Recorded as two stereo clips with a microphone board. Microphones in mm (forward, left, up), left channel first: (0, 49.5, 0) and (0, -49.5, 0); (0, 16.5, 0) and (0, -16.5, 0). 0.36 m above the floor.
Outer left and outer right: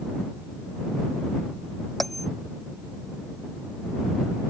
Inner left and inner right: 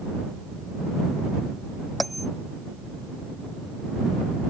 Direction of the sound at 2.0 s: Centre (ahead or behind).